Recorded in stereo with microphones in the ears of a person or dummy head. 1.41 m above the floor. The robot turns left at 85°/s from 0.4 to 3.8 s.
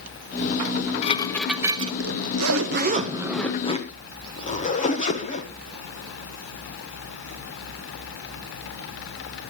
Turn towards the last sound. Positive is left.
turn(degrees=145)